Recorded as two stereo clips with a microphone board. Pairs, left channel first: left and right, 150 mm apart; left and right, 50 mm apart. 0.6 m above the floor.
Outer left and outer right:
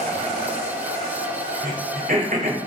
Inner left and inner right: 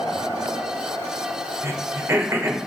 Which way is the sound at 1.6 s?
65° right (ahead or behind).